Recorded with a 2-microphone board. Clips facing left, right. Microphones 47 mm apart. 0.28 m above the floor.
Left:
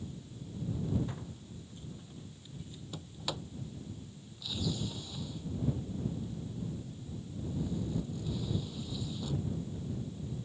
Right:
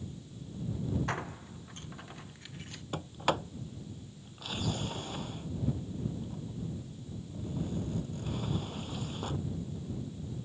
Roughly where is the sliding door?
Right.